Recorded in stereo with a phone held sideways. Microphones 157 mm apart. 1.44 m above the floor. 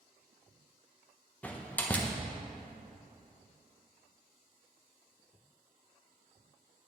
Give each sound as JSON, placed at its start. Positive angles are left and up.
{"t": 1.4, "sound": "a door slam", "side_deg": 10, "distance_m": 1.0}